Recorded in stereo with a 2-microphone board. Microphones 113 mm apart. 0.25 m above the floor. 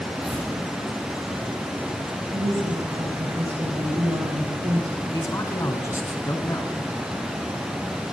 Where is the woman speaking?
50° right (ahead or behind), 6.5 m.